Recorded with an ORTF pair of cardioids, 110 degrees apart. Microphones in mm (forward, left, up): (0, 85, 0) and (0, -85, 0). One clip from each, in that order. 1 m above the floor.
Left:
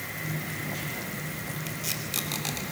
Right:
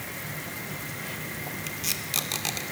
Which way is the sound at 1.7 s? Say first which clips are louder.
Right 3 dB; 15° right.